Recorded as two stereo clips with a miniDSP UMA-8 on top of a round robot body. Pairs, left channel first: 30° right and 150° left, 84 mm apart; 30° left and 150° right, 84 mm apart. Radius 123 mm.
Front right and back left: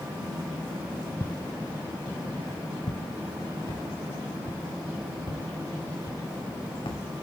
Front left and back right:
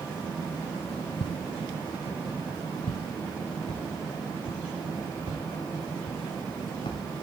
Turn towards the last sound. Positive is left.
turn(degrees=0)